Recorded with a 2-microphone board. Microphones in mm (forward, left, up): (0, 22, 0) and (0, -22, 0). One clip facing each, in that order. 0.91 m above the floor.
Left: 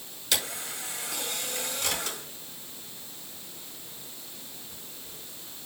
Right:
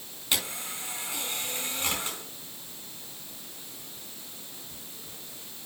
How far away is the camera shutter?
About 4.5 m.